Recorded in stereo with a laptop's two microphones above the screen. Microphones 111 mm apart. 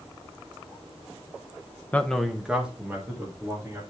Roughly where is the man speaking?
Centre.